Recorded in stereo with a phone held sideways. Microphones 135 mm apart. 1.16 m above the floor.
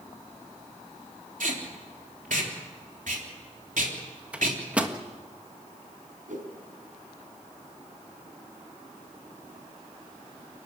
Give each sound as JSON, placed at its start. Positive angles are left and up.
{"t": 1.4, "sound": "tape being pulled", "side_deg": -75, "distance_m": 3.5}
{"t": 4.3, "sound": "a microwave", "side_deg": -10, "distance_m": 1.5}
{"t": 6.3, "sound": "a whoosh", "side_deg": -75, "distance_m": 3.5}